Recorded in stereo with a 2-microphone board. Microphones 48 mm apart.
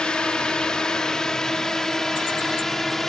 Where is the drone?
20° left (ahead or behind); by 3.1 s 10° left (ahead or behind).